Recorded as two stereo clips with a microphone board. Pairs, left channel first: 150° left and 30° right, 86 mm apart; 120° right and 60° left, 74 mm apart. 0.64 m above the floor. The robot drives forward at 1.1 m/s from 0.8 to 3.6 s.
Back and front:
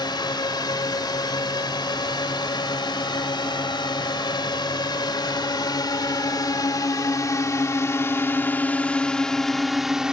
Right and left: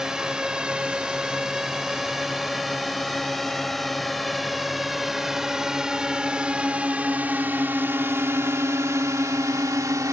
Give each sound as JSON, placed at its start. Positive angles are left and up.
{"t": 0.0, "sound": "a drone", "azimuth_deg": 140}